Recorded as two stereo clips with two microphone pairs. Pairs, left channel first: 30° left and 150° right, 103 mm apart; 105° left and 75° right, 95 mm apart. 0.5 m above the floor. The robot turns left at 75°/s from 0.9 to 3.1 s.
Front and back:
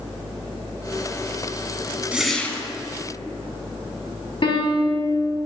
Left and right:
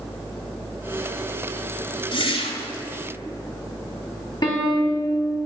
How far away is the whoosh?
About 1.1 m.